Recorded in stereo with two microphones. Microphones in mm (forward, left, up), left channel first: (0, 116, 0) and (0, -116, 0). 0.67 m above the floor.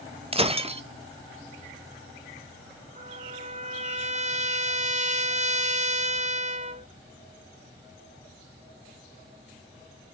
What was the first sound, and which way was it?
Breaking glass, 25° right (ahead or behind).